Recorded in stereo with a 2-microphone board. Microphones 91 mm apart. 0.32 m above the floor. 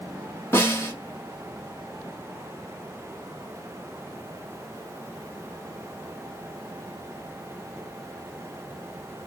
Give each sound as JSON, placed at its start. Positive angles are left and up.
{"t": 0.5, "sound": "a snare drum", "side_deg": 25, "distance_m": 1.8}